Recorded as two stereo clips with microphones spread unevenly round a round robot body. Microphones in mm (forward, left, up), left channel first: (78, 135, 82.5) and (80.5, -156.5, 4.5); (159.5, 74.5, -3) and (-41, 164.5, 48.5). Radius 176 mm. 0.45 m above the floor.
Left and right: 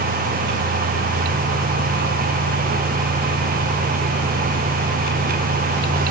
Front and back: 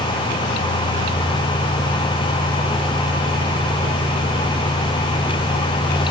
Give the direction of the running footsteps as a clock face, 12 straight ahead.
I don't hear running footsteps.